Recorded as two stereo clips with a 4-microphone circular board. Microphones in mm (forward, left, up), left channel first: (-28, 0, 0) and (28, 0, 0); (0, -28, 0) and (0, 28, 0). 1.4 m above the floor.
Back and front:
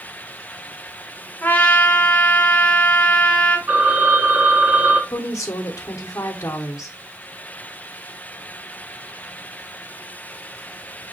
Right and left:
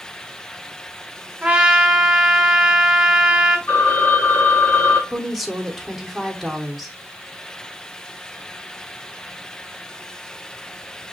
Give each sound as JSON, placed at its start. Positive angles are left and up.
{"t": 1.4, "sound": "a trumpet", "azimuth_deg": 150, "distance_m": 0.9}
{"t": 3.7, "sound": "a phone ringing", "azimuth_deg": -40, "distance_m": 2.0}
{"t": 5.1, "sound": "a woman speaking", "azimuth_deg": 175, "distance_m": 1.1}